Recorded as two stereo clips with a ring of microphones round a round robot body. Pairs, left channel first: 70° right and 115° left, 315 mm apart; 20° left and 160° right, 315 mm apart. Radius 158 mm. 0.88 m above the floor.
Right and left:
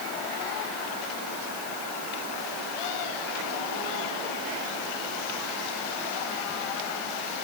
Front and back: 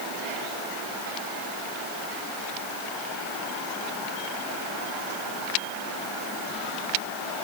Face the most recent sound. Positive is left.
No sound to turn to.